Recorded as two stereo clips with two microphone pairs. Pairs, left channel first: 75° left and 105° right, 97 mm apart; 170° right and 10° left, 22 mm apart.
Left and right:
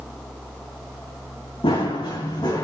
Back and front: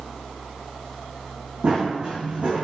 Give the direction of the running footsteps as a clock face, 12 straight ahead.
10 o'clock.